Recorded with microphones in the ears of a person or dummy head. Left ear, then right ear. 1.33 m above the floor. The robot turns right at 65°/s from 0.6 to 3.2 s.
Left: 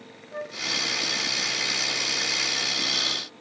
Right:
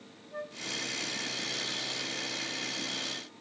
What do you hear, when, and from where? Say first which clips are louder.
0.3 s a flute: left 6 dB; 20° left (ahead or behind)